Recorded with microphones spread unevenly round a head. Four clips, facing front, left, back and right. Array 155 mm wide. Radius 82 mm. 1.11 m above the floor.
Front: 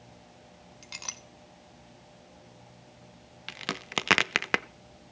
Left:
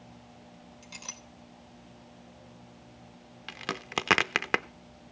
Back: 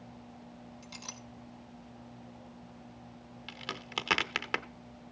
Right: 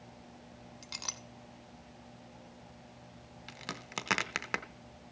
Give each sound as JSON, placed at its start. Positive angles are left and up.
{"t": 0.8, "sound": "a clink", "azimuth_deg": -35, "distance_m": 1.5}
{"t": 3.5, "sound": "a crack", "azimuth_deg": 45, "distance_m": 0.5}